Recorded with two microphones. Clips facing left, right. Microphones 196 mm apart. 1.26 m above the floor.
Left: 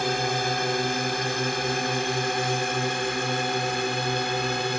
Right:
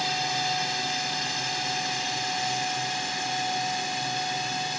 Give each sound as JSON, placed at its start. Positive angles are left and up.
{"t": 0.0, "sound": "a drone", "side_deg": 60}